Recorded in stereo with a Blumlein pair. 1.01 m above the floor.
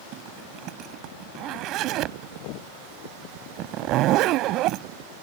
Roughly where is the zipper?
Ahead right.